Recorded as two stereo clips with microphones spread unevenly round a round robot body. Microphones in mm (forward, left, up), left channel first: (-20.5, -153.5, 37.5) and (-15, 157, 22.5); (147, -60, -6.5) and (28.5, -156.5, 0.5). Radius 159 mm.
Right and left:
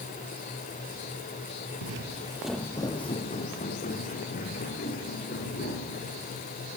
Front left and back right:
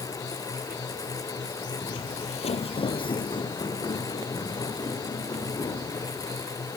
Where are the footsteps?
90° left, 0.7 m; by 6.2 s 30° right, 5.5 m.